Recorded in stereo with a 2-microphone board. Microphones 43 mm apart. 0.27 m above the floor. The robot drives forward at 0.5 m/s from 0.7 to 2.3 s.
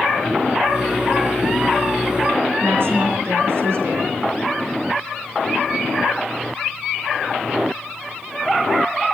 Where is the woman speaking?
70° right (ahead or behind), 4 m.